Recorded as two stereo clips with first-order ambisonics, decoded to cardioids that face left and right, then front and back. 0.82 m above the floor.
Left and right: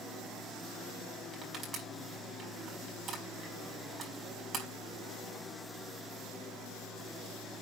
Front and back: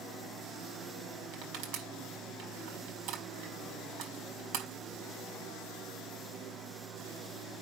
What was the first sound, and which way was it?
Crushing, 155° right.